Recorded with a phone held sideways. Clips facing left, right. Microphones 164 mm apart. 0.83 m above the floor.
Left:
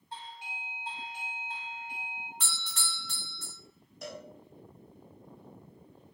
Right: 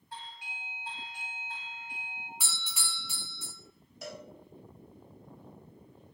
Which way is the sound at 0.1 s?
25° left (ahead or behind).